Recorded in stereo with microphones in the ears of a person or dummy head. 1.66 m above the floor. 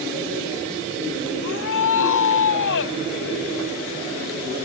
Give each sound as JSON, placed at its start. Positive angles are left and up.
{"t": 1.4, "sound": "a shout", "side_deg": 65}